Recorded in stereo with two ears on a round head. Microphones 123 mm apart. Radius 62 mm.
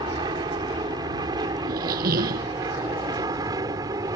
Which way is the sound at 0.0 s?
35° right (ahead or behind).